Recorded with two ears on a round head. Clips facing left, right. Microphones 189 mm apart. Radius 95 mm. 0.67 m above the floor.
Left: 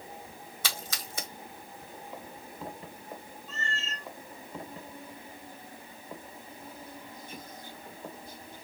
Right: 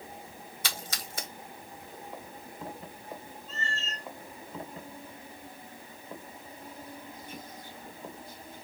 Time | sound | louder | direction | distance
0.6 | a splash | left 1 dB | 70° left (ahead or behind) | 1.1 m
3.5 | a cat meowing | even | 45° left (ahead or behind) | 1.8 m